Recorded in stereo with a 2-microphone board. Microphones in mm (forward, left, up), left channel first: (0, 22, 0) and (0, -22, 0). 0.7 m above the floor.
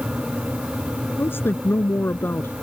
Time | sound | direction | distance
1.2 | a woman speaking | 70° left (ahead or behind) | ?